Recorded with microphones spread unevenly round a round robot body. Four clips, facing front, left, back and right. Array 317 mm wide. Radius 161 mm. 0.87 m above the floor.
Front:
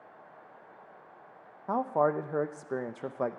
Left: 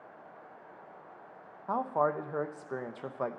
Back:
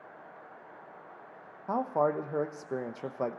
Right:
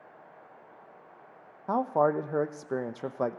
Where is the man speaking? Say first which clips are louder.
Right 4 dB, front 1 dB; 85° right, 0.8 m.